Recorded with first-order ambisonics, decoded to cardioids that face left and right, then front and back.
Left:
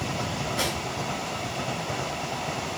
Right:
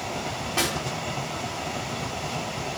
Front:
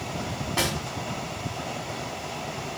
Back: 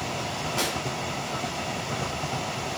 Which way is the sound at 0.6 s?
35° right.